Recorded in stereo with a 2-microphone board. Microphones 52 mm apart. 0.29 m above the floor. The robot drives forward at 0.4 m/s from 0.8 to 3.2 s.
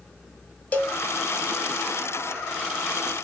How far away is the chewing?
No chewing in this recording.